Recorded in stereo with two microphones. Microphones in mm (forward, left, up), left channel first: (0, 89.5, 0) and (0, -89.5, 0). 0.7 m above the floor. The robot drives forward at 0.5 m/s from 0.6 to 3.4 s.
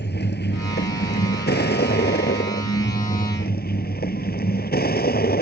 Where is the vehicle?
70° left (ahead or behind); by 5.4 s 60° left (ahead or behind).